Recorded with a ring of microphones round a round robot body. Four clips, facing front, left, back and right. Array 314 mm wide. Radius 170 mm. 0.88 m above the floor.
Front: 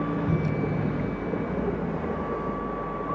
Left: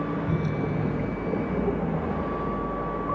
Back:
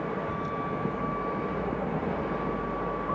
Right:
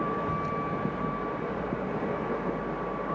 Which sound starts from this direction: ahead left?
A vehicle, at 0.0 s.